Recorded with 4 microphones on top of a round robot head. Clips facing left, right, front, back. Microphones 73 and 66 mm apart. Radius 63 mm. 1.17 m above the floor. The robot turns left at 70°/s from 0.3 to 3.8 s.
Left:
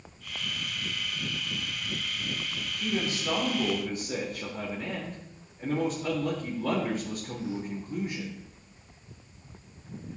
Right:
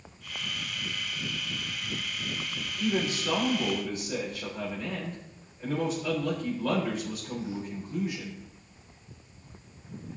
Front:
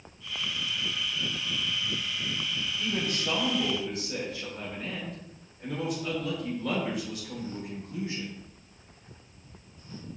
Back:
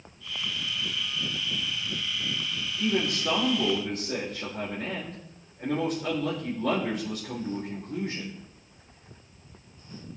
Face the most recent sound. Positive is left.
turn(degrees=145)